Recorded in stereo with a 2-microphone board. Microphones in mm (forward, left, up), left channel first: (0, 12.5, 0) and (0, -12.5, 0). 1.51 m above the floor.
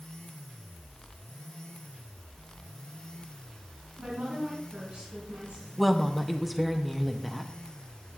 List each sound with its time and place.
4.0 s a woman speaking: 85° right, 3 m
5.8 s a woman speaking: centre (ahead or behind), 0.5 m